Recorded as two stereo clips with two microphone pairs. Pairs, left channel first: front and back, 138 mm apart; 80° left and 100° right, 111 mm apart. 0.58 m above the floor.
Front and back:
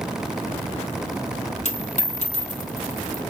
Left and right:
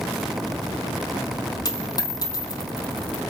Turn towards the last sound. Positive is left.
turn(degrees=30)